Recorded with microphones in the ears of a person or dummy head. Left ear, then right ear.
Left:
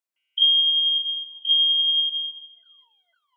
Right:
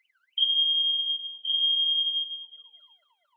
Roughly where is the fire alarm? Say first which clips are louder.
Left 5 dB; centre.